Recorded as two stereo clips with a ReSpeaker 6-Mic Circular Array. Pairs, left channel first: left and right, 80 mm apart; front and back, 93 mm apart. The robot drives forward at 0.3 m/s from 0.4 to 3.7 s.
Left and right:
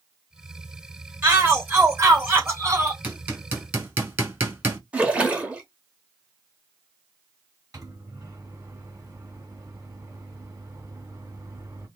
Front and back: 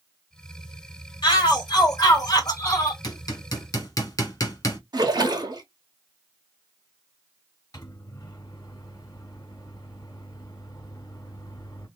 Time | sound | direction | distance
1.2 | a shout | 30° right | 2.0 m
3.0 | hammering | 30° right | 1.6 m
4.9 | a splash | 160° right | 1.2 m
7.7 | a microwave | 45° right | 1.8 m